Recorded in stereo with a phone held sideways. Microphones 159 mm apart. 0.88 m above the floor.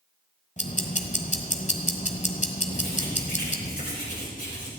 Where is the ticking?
50° left (ahead or behind), 1.3 m.